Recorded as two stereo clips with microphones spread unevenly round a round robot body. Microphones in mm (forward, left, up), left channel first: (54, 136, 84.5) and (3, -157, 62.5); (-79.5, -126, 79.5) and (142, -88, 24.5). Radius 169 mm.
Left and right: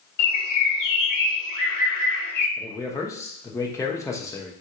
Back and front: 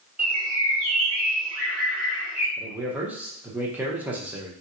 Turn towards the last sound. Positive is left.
turn(degrees=5)